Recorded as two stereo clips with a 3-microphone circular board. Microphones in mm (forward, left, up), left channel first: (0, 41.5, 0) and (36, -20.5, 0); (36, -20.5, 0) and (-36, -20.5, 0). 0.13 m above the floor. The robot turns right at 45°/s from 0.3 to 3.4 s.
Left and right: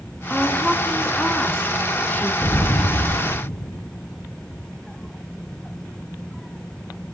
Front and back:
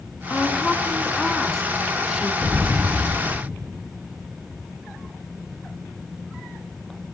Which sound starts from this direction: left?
An explosion, at 2.4 s.